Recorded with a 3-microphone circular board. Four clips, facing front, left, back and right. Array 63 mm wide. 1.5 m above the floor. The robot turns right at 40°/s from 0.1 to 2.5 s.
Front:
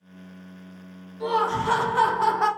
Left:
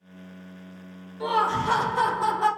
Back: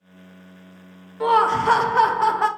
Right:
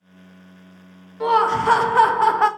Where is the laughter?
150° right, 0.6 m; by 2.5 s 95° right, 0.6 m.